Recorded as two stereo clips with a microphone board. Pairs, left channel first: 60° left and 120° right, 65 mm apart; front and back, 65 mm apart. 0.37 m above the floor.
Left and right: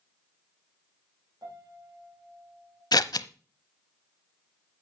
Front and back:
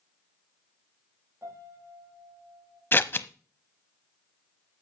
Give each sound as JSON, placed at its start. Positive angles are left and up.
{"t": 1.4, "sound": "a piano", "azimuth_deg": -135, "distance_m": 4.0}
{"t": 2.9, "sound": "scissors", "azimuth_deg": 55, "distance_m": 0.6}